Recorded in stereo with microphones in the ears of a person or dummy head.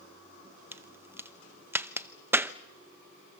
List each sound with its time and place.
0.7 s a crack: 15° right (ahead or behind), 0.6 m